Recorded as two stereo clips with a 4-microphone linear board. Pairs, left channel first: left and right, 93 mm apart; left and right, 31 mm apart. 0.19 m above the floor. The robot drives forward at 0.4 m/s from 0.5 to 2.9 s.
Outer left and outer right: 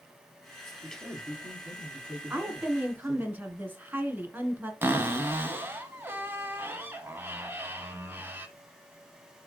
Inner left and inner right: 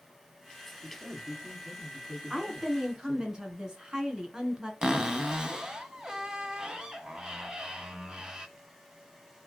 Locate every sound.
0.8 s a man speaking: 5° left (ahead or behind), 3.5 m
2.3 s a woman speaking: 25° right (ahead or behind), 1.7 m; by 4.7 s 20° right (ahead or behind), 1.9 m
4.8 s a cupboard door: 20° right (ahead or behind), 1.4 m